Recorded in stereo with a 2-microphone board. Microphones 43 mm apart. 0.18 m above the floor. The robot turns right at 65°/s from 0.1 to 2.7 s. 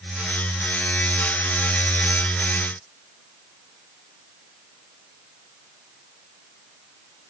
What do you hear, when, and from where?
Only background noise.